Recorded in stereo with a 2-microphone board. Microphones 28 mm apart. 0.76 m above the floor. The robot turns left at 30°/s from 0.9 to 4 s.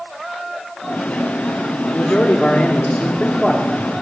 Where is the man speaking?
65° left, 2 m; by 3.9 s 5° left, 2 m.